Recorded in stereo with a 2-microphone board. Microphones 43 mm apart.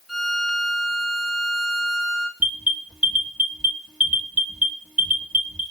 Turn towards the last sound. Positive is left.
turn(degrees=-25)  # may be behind; listen again after turning